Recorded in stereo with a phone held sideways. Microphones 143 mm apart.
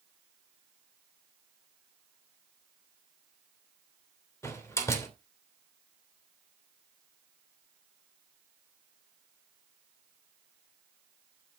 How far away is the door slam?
About 3 m.